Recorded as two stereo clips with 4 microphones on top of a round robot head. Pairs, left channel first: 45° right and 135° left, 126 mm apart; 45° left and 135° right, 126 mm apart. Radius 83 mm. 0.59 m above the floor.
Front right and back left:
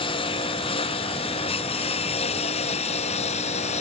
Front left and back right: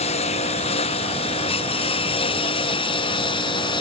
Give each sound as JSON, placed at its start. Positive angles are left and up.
{"t": 0.0, "sound": "a lawn mower", "azimuth_deg": 5}